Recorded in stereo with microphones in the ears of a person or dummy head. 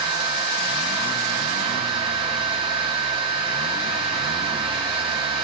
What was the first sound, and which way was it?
A fan, 30° right (ahead or behind).